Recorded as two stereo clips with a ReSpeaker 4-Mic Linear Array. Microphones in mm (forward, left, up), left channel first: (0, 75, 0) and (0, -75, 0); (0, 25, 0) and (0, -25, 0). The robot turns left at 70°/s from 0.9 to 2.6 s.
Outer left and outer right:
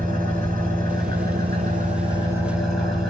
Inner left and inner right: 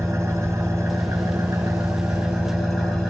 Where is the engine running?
60° right, 6 m; by 3.1 s straight behind, 6 m.